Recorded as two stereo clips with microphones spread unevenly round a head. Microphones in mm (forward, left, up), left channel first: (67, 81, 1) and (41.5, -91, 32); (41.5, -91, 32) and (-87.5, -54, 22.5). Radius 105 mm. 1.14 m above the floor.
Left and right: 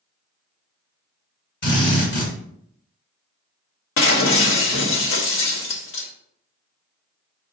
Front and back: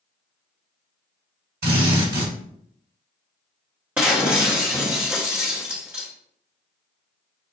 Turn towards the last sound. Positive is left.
turn(degrees=80)